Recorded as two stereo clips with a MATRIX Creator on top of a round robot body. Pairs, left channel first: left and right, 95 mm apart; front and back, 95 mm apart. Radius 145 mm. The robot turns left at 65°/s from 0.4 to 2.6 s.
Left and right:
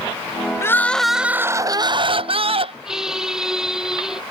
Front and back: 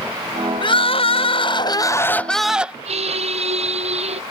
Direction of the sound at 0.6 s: 30° left.